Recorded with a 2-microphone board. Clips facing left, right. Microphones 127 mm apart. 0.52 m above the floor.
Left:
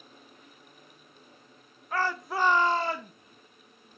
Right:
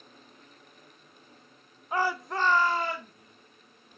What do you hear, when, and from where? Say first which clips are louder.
1.9 s a shout: right 1 dB; 20° right (ahead or behind), 0.7 m; by 3.1 s 40° left (ahead or behind), 0.9 m